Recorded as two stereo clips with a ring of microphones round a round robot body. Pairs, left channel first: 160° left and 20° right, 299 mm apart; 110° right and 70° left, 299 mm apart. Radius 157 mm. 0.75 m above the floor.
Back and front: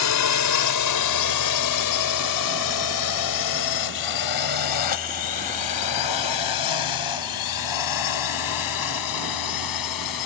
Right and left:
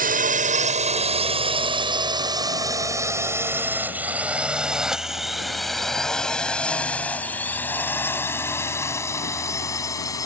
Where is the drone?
130° left; by 10.3 s 170° left.